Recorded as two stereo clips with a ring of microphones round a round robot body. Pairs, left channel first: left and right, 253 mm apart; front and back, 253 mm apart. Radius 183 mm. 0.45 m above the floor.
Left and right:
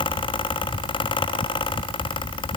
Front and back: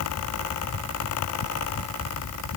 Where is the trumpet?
No trumpet in this recording.